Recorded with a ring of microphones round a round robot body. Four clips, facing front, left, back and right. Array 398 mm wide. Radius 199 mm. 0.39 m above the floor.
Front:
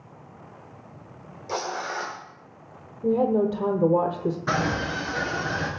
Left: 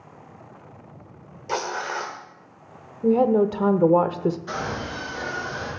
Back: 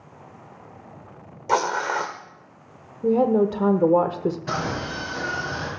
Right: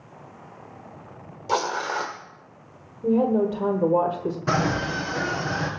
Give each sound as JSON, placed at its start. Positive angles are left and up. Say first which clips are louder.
{"t": 1.5, "sound": "tearing paper", "louder": "right 3 dB, back 8 dB", "azimuth_deg": -165, "distance_m": 1.3}
{"t": 3.0, "sound": "a woman speaking", "louder": "left 2 dB, back 3 dB", "azimuth_deg": 120, "distance_m": 1.0}
{"t": 4.5, "sound": "a scream", "louder": "right 6 dB, front 2 dB", "azimuth_deg": -75, "distance_m": 5.0}